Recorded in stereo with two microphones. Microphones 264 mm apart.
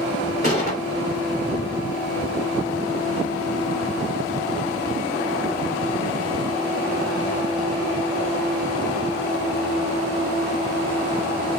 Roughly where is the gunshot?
Left.